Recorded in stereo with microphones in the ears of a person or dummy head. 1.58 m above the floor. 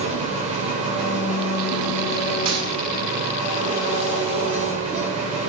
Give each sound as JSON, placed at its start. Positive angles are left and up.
{"t": 0.0, "sound": "an engine running", "side_deg": -30, "distance_m": 5.0}
{"t": 2.5, "sound": "a gunshot", "side_deg": -30, "distance_m": 9.5}